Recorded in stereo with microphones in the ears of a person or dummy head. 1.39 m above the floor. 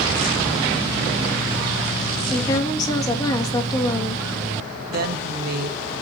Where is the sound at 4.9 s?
55° right (ahead or behind), 1.8 m.